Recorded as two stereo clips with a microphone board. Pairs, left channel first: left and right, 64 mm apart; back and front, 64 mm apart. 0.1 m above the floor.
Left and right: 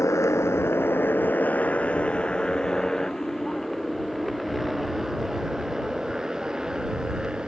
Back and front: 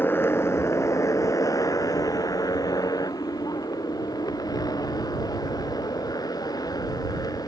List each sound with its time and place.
0.0 s a motorcycle: 125° left; by 7.5 s 170° right